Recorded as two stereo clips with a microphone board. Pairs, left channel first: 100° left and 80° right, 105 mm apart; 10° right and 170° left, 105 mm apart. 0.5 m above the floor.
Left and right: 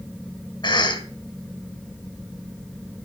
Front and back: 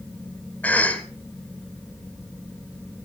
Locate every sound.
0.6 s a cough: 65° left, 2 m